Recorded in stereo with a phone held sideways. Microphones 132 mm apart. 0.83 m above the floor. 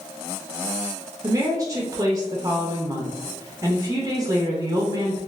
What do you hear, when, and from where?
1.2 s a woman speaking: 25° right (ahead or behind), 0.5 m